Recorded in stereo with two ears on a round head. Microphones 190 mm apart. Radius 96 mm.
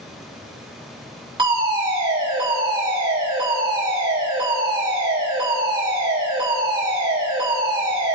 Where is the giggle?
No giggle in this recording.